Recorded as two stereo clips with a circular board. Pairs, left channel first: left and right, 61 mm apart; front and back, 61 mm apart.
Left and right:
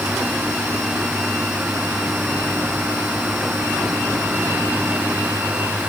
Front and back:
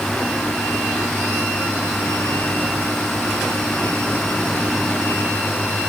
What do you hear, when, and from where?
Only background noise.